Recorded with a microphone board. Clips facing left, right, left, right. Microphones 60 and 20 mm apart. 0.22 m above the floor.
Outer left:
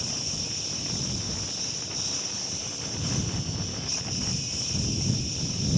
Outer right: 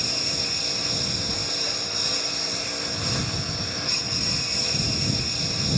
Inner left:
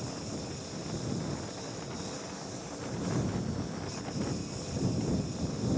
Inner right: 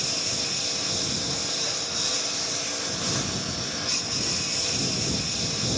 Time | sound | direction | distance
0.0 | a lawn mower | 75° right (ahead or behind) | ?